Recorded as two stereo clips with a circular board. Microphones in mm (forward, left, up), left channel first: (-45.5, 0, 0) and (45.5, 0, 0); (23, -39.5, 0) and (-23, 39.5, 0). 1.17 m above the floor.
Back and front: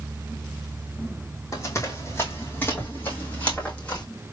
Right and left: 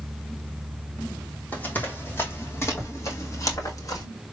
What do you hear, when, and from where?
1.5 s running footsteps: 130° right, 2.5 m; by 4.0 s 105° right, 3 m